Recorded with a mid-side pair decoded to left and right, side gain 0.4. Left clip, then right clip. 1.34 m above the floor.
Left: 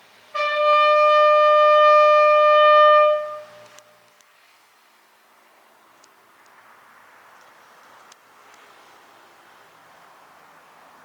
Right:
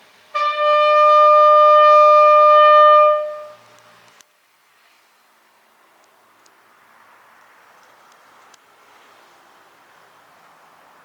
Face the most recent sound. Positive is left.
turn(degrees=-40)